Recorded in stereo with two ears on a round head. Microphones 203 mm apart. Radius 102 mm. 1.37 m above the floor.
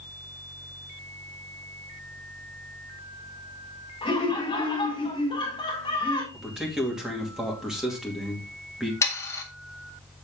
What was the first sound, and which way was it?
Laughter, 25° left (ahead or behind).